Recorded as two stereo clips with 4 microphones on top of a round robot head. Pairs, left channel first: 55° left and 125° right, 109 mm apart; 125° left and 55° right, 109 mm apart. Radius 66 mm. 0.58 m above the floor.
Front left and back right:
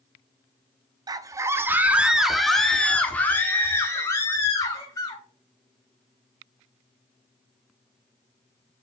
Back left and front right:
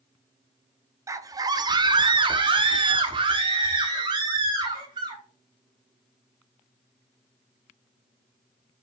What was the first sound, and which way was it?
A scream, 100° right.